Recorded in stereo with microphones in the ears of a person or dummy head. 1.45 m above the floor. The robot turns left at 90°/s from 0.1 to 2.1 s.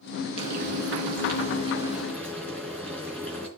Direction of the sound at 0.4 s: 35° right.